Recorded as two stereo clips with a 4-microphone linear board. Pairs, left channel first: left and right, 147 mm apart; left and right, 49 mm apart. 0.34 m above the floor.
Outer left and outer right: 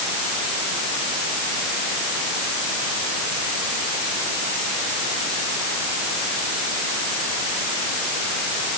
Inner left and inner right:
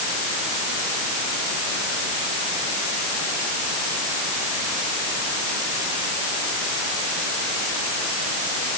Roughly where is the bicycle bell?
I don't hear a bicycle bell.